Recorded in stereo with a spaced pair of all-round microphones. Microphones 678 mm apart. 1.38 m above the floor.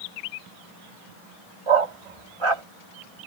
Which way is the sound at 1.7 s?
45° right (ahead or behind).